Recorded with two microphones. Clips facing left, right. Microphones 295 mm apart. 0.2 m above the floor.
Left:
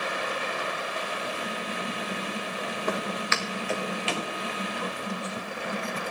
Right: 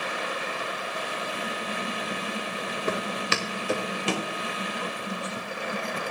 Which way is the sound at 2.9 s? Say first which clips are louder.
Right 2 dB; 20° right (ahead or behind).